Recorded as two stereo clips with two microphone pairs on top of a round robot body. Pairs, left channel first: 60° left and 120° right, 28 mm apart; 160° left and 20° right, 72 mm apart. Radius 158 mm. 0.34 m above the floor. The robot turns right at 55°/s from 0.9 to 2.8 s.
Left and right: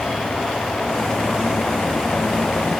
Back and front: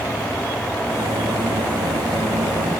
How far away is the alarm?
I don't hear an alarm.